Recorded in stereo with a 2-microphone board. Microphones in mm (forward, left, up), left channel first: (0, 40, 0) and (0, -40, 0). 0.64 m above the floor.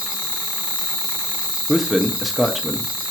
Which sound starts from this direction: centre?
A man speaking, at 1.7 s.